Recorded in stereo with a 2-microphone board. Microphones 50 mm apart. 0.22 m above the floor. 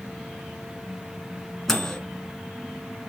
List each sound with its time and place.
1.7 s a microwave: 10° left (ahead or behind), 1.5 m